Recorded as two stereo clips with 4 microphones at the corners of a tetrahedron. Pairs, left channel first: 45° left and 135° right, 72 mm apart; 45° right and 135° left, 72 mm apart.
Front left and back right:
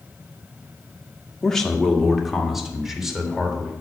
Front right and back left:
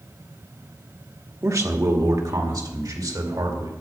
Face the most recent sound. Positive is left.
turn(degrees=145)